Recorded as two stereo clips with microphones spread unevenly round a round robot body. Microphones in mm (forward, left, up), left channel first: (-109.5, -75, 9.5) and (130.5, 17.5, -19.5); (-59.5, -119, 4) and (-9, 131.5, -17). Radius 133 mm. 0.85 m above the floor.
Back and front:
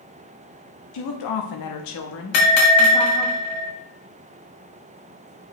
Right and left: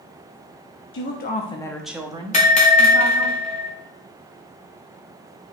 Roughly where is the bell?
Behind.